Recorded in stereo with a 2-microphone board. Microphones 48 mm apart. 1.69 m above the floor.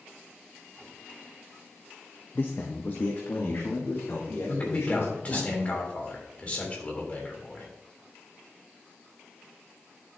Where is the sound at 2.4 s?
45° left (ahead or behind), 0.6 m; by 5.5 s 55° left (ahead or behind), 3 m.